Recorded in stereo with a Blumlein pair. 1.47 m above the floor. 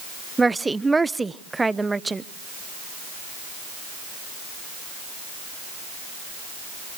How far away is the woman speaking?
About 0.7 m.